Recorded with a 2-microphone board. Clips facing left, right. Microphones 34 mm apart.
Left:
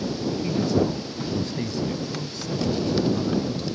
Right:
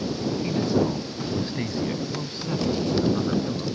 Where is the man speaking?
10° right (ahead or behind); by 3.7 s 35° right (ahead or behind).